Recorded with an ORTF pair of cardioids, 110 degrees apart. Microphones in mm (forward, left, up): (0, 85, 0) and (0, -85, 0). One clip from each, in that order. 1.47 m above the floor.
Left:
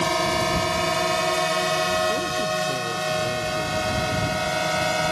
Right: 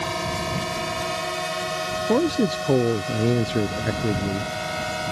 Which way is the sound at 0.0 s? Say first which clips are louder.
Left 5 dB; 30° left.